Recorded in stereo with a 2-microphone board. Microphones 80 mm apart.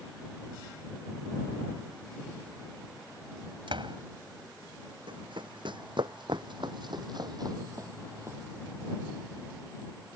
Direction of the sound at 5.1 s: 75° right (ahead or behind).